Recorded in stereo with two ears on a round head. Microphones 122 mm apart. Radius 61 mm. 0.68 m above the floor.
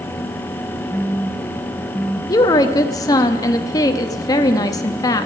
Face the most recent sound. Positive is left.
turn(degrees=25)  # may be behind; listen again after turning